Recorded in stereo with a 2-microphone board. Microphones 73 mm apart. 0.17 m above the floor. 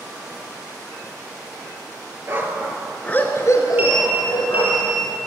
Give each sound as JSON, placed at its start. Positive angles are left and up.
{"t": 2.3, "sound": "a dog barking", "side_deg": -35, "distance_m": 1.4}
{"t": 3.8, "sound": "a sliding door", "side_deg": -25, "distance_m": 2.5}